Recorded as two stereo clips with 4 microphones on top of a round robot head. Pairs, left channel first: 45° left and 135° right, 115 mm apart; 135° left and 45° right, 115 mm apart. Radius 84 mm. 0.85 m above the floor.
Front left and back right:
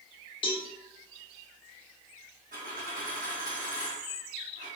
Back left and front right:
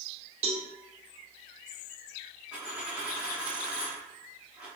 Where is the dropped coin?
125° right, 1.7 m.